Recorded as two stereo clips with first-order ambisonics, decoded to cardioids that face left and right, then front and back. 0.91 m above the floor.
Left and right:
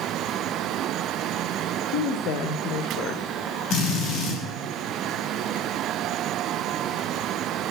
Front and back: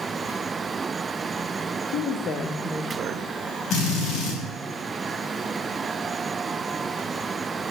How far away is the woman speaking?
About 1.4 m.